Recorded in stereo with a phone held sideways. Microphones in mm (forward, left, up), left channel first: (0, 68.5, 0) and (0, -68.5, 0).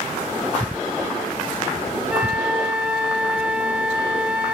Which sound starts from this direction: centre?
A flute, at 2.1 s.